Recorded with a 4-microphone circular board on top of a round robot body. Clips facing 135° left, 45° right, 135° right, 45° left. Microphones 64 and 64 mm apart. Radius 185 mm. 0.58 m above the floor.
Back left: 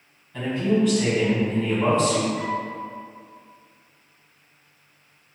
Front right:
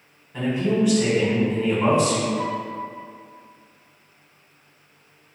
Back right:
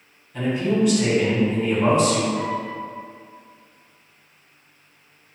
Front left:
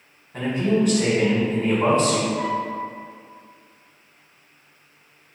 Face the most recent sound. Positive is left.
turn(degrees=-160)